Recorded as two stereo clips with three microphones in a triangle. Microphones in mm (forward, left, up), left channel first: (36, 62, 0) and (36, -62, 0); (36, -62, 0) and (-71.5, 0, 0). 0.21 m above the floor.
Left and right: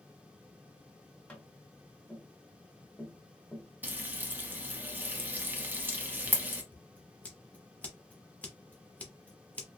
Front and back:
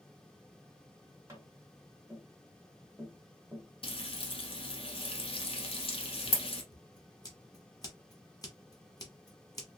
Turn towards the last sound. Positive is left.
turn(degrees=15)